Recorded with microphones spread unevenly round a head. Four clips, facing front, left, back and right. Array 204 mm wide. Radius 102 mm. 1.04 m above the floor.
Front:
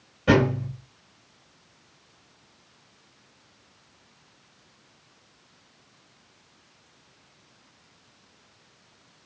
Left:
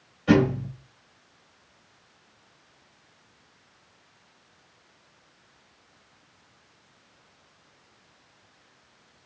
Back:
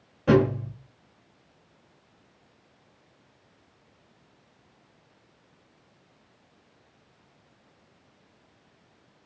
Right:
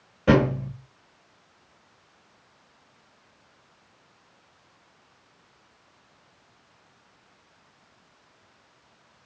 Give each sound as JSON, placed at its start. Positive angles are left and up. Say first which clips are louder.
{"t": 0.3, "sound": "a thud", "louder": "even, even", "azimuth_deg": -75, "distance_m": 4.5}